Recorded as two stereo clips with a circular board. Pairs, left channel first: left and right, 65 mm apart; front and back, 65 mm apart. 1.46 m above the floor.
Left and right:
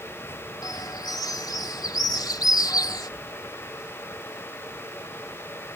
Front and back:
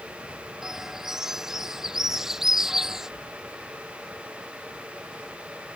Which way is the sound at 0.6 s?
100° left.